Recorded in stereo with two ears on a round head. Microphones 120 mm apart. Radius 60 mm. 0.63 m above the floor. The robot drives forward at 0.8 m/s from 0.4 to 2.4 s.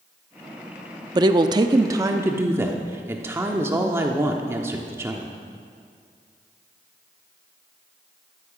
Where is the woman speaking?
30° right (ahead or behind), 0.7 m; by 5.4 s 20° right (ahead or behind), 1.1 m.